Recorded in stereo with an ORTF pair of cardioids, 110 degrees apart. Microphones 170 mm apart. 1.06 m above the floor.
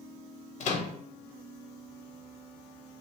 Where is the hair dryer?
No hair dryer in this recording.